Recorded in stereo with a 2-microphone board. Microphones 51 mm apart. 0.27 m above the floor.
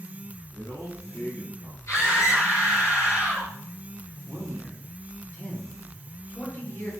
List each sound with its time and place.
0.5 s a man speaking: 70° left (ahead or behind), 4.5 m
1.9 s a scream: 65° left (ahead or behind), 6 m
4.3 s a man speaking: 45° left (ahead or behind), 5 m